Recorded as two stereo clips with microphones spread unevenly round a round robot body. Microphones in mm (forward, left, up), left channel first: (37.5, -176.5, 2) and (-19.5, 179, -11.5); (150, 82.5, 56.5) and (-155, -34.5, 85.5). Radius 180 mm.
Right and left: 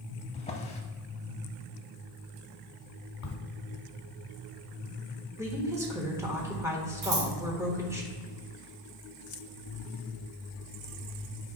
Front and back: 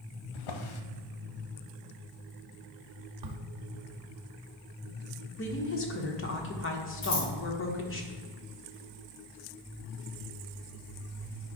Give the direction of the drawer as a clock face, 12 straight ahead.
12 o'clock.